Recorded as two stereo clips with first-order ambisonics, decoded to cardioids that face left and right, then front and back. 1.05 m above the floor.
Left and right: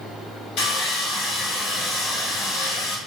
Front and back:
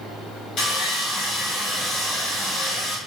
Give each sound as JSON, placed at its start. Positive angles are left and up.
{"t": 0.6, "sound": "sawing", "azimuth_deg": 55, "distance_m": 0.9}